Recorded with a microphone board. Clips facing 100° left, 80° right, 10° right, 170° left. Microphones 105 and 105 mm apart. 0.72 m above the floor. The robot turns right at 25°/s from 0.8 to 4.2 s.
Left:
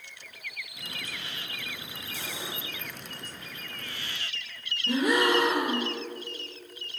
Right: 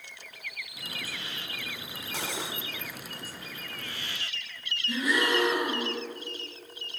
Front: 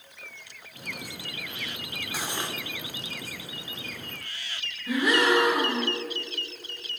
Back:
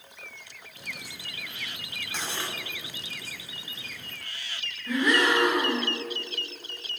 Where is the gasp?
70° left, 2.5 m.